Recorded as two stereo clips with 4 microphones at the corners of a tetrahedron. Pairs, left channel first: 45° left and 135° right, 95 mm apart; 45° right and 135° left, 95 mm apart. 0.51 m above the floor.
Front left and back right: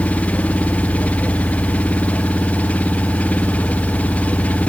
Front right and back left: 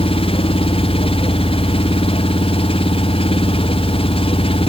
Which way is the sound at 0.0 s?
30° right.